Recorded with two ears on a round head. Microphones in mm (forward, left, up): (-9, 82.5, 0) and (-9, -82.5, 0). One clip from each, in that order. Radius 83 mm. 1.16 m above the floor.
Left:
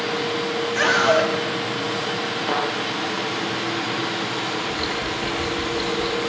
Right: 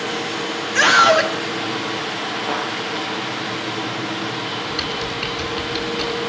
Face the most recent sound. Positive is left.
turn(degrees=-85)